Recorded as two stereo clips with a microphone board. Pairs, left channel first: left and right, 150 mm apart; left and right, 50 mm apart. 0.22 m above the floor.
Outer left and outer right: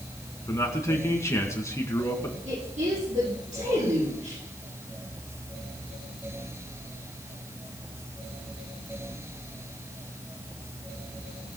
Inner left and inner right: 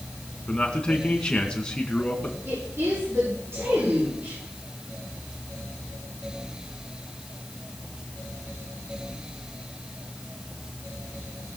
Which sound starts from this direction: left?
A man speaking, at 0.5 s.